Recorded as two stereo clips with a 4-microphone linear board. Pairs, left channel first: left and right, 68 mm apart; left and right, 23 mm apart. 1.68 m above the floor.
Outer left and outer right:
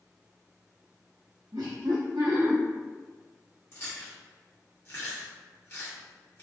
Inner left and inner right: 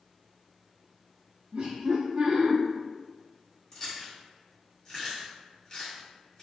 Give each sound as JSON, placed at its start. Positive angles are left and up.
{"t": 1.5, "sound": "laughter", "side_deg": -75, "distance_m": 0.6}
{"t": 3.7, "sound": "chewing", "side_deg": 35, "distance_m": 1.3}